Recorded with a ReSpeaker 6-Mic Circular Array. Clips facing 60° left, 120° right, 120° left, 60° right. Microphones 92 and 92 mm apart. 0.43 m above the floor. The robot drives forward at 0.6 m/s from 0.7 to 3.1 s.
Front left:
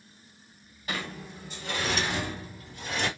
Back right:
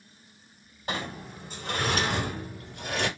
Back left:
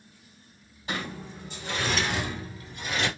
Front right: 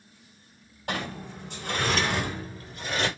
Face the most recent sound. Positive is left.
turn(degrees=-115)